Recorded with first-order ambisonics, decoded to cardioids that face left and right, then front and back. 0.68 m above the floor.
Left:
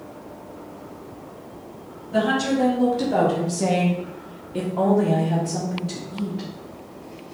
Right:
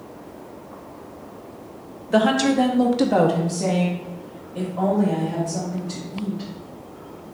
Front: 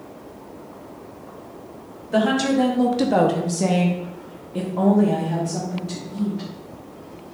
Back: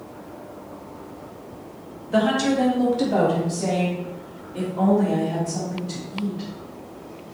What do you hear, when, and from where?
2.1 s a woman speaking: 85° right, 0.9 m; by 6.5 s 70° left, 1.9 m